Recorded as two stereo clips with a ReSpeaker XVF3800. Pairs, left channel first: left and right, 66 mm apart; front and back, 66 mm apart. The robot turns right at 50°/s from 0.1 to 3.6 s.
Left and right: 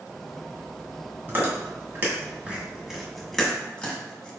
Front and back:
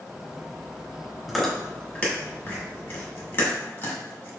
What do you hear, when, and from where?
1.3 s chewing: 90° right, 1.5 m; by 4.3 s 25° left, 1.5 m